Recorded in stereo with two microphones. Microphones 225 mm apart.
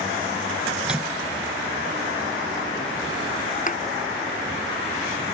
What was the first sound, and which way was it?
A microwave, 5° right (ahead or behind).